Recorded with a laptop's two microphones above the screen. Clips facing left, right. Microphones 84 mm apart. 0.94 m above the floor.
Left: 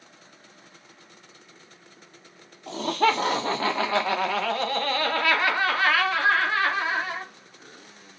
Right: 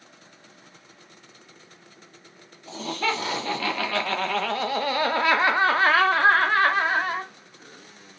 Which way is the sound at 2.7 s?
50° left (ahead or behind).